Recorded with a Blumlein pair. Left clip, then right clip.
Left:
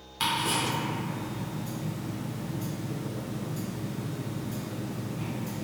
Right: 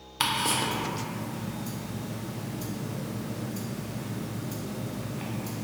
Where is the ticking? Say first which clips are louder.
Right 1 dB; 20° right, 0.5 m.